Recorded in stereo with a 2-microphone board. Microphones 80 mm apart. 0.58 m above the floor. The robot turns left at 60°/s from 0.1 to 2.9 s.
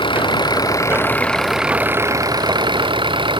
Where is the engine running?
85° left; by 3.4 s 85° right.